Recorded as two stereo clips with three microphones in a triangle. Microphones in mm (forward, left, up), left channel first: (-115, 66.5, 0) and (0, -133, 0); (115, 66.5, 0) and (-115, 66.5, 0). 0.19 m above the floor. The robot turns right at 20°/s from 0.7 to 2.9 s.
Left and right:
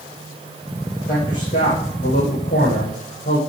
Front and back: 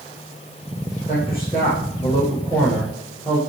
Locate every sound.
1.1 s a man speaking: 65° left, 9.5 m; by 3.4 s 100° left, 9.5 m